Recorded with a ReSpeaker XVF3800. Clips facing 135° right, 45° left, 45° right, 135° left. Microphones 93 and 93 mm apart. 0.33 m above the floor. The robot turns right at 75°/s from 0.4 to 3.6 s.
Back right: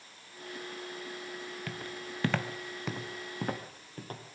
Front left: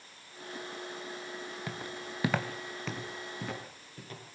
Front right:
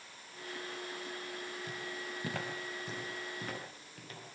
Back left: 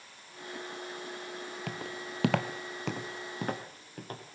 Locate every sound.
1.7 s footsteps: 115° left, 1.5 m; by 4.2 s straight behind, 4 m